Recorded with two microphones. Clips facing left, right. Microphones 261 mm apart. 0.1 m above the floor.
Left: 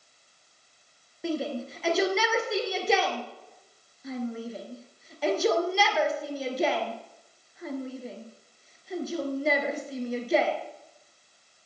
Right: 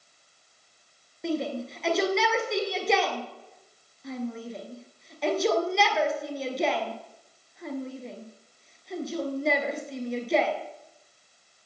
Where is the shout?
Centre (ahead or behind), 2.0 m.